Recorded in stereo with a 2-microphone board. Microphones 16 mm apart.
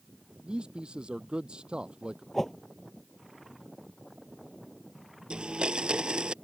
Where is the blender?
65° right (ahead or behind).